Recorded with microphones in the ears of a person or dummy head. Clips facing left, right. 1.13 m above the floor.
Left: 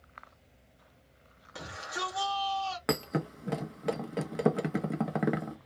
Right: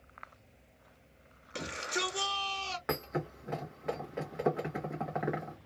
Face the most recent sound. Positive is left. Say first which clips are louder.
# left 3 dB
turn(degrees=50)  # may be behind; listen again after turning